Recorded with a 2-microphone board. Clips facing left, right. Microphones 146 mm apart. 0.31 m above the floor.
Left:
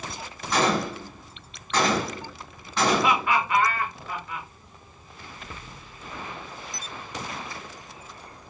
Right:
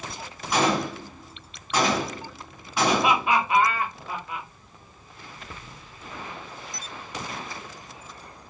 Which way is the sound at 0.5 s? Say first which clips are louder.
Even; 10° right (ahead or behind).